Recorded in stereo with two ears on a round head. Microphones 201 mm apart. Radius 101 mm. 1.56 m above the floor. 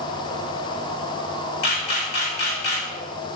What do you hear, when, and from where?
1.6 s a camera shutter: 50° left (ahead or behind), 1.8 m